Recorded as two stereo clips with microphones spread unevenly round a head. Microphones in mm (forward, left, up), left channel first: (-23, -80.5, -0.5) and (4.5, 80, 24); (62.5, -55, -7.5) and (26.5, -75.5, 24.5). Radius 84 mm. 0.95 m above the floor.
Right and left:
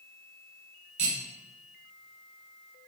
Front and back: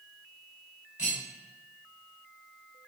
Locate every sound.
1.0 s cutlery clinking: 130° left, 4.5 m